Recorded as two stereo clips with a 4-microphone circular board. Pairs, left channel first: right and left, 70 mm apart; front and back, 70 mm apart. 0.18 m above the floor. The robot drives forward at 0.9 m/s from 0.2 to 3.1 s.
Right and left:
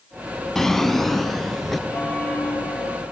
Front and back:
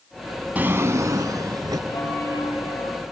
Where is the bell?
20° right, 5.5 m; by 3.0 s 25° right, 4.5 m.